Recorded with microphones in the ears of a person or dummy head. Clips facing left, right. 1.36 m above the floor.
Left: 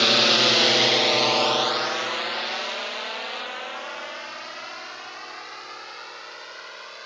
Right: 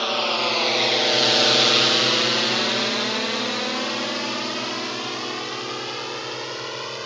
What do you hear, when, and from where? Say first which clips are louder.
0.0 s a drone: left 2 dB; 25° left (ahead or behind); by 7.1 s 70° right (ahead or behind)